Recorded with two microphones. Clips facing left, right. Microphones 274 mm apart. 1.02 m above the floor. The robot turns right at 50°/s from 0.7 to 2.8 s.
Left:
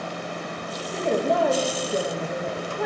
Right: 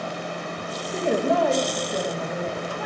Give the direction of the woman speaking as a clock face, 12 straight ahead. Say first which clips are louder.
Right 1 dB; 1 o'clock.